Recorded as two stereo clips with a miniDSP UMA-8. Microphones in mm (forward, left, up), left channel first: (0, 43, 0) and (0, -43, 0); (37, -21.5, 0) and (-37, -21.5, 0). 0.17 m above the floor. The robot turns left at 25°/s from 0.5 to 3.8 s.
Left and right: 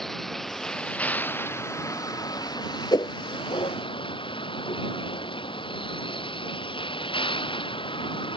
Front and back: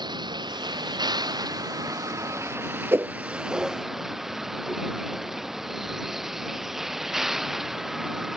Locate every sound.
0.0 s a vehicle: 175° left; by 8.4 s 95° left
2.9 s a whoosh: 125° left; by 3.1 s 120° left